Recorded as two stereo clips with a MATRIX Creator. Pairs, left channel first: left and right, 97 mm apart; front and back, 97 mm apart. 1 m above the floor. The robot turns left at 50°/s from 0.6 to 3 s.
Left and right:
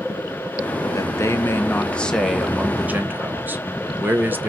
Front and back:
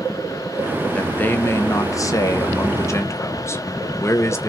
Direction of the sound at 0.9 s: 70° left.